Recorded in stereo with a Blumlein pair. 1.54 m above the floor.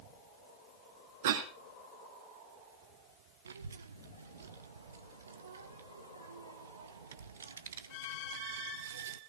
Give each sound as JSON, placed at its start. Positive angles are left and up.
{"t": 1.2, "sound": "a cough", "azimuth_deg": -55, "distance_m": 4.0}
{"t": 3.5, "sound": "a child speaking", "azimuth_deg": -70, "distance_m": 1.2}